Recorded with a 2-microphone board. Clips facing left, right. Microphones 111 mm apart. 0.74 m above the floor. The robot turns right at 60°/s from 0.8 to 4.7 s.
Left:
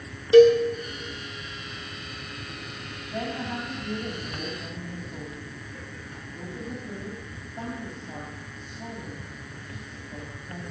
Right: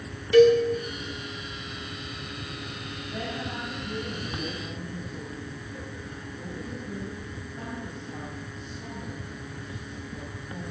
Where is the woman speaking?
20° left, 4 m; by 10.6 s 115° left, 4 m.